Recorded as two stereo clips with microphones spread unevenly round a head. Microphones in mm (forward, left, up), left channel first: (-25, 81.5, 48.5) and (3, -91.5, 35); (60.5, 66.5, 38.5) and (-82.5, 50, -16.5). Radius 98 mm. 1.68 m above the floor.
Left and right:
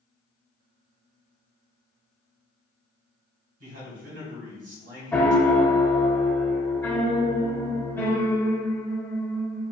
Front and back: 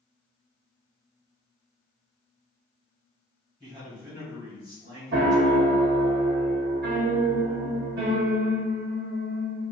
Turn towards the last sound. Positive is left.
turn(degrees=180)